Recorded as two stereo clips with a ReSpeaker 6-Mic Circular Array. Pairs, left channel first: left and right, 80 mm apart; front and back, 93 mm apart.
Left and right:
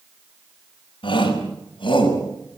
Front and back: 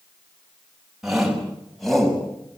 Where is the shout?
95° left, 5.5 m; by 2.2 s 85° left, 6.5 m.